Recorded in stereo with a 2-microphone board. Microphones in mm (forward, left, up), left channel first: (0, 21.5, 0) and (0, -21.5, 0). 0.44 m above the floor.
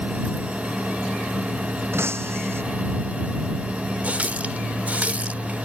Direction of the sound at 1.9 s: 75° right (ahead or behind).